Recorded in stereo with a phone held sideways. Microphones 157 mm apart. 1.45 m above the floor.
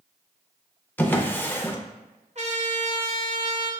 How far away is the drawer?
About 0.5 m.